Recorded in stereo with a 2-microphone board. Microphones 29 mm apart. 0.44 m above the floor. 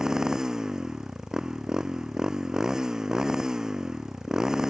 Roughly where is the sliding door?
I don't hear a sliding door.